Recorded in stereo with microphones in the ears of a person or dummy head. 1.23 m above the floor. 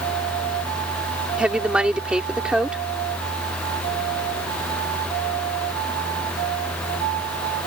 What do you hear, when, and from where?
1.4 s a woman speaking: 5° right (ahead or behind)